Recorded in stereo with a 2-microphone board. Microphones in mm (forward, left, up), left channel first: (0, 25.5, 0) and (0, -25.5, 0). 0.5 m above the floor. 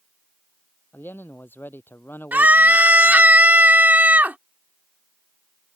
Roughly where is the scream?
Right.